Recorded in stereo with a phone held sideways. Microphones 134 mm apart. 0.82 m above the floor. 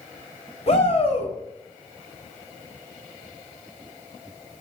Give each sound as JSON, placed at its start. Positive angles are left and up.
{"t": 0.7, "sound": "a shout", "side_deg": 50, "distance_m": 3.5}